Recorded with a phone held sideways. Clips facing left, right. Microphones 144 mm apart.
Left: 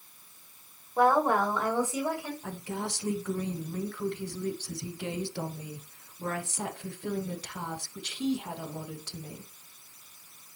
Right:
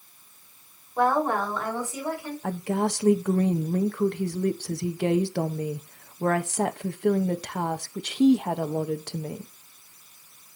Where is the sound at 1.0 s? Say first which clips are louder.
Even; 10° left (ahead or behind), 4.5 m; by 2.3 s 20° left (ahead or behind), 6 m.